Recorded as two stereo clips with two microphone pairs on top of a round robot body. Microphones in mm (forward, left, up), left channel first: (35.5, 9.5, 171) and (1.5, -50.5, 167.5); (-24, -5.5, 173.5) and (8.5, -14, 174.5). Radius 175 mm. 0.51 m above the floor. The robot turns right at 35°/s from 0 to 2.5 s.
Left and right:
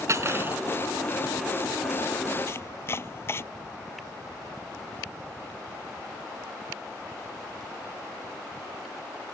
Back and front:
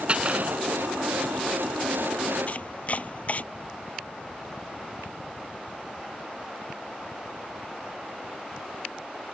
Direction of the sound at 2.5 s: 115° left.